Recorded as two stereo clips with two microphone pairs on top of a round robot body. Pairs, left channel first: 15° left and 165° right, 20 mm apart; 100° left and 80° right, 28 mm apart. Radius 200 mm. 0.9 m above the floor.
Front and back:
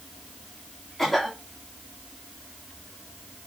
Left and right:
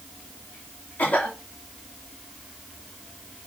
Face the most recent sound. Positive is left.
turn(degrees=100)